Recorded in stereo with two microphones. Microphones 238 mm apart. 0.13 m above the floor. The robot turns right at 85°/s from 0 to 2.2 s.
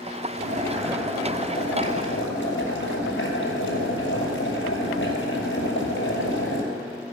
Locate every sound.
0.4 s boiling: 55° right, 2.5 m; by 6.6 s 100° left, 2.5 m